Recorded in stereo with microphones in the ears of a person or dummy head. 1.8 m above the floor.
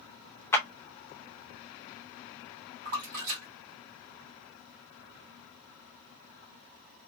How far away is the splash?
About 1.6 m.